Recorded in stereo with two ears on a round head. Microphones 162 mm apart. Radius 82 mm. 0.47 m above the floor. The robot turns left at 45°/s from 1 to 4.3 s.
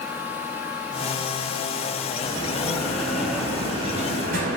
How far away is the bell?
About 1.7 m.